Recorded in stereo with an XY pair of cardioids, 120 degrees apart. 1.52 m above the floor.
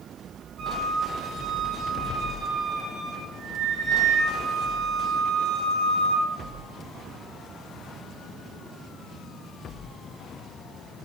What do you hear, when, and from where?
0.6 s a flute: 60° right, 5 m